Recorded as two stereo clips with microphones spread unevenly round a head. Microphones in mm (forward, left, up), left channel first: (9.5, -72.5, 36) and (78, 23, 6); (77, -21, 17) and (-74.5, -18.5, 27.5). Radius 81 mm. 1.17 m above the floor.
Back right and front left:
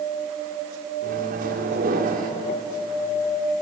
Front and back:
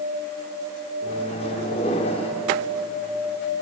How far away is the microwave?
About 2 m.